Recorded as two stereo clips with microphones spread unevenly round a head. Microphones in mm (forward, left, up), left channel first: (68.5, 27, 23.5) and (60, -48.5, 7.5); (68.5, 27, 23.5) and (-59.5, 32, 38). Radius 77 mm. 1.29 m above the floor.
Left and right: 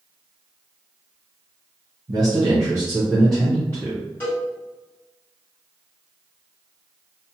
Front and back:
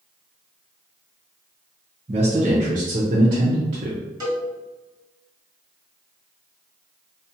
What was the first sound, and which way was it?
A man speaking, 130° right.